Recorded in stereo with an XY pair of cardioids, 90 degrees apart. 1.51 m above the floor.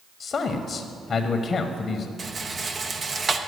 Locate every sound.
0.2 s a man speaking: 45° left, 0.8 m
2.2 s a rattle: 35° right, 0.7 m